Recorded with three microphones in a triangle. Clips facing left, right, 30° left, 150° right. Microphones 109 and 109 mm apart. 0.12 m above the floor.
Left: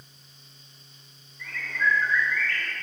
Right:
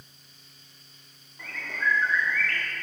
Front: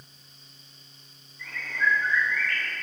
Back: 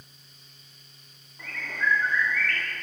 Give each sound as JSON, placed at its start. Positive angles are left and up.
{"t": 1.4, "sound": "a bird", "azimuth_deg": -115, "distance_m": 6.0}